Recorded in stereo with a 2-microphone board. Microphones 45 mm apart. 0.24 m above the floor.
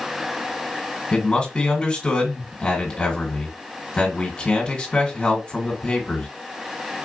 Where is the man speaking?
20° left (ahead or behind), 1.9 m.